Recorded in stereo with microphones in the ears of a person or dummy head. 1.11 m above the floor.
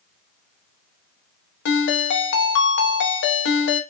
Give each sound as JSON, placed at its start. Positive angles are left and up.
{"t": 1.6, "sound": "a ringtone", "side_deg": 65, "distance_m": 0.8}